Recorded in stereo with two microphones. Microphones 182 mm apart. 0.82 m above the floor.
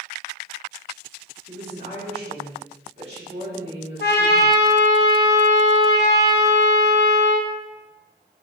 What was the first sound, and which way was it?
A woman speaking, 35° right (ahead or behind).